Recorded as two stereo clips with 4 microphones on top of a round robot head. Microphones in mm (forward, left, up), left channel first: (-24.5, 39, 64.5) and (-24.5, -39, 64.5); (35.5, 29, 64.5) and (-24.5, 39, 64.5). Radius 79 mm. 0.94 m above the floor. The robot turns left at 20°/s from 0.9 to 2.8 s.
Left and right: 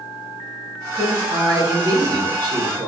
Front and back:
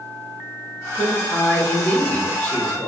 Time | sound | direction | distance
0.9 | a man speaking | 45° right | 1.0 m